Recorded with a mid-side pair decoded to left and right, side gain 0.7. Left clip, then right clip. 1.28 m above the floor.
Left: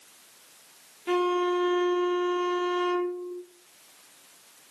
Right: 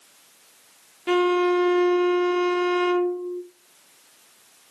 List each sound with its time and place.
1.1 s a violin: 35° right, 0.7 m